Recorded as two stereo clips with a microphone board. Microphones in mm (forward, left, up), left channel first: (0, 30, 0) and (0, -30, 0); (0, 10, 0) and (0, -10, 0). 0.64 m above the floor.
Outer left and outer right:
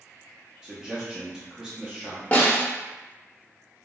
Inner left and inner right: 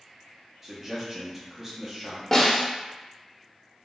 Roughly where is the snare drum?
Left.